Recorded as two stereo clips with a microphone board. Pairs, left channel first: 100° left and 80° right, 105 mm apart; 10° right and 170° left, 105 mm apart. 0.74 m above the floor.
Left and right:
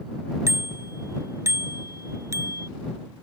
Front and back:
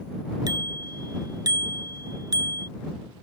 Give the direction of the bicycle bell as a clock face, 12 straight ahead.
5 o'clock.